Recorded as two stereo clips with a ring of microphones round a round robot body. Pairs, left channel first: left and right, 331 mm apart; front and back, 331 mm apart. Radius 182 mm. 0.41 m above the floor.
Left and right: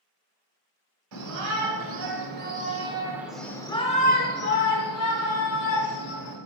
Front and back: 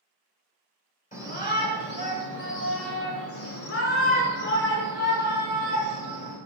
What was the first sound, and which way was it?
A shout, 65° right.